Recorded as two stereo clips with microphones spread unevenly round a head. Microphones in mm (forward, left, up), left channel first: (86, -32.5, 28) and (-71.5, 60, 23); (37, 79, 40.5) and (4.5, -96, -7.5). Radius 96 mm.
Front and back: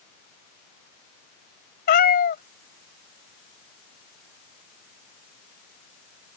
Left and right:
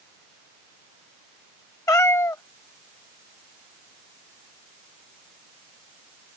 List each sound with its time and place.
1.9 s a cat meowing: 10° left